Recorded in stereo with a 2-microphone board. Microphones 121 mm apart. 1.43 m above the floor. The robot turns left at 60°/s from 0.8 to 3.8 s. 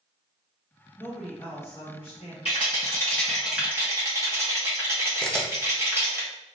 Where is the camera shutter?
5° left (ahead or behind), 0.6 m.